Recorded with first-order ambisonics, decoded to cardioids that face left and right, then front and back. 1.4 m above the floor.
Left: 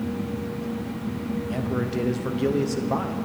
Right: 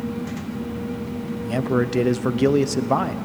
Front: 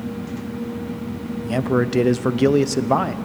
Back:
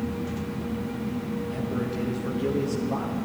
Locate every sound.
1.4 s a man speaking: 30° right, 0.5 m